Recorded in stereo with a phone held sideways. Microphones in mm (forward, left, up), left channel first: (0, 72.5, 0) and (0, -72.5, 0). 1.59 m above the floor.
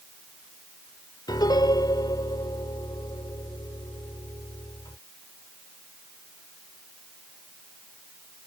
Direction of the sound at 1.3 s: 30° left (ahead or behind).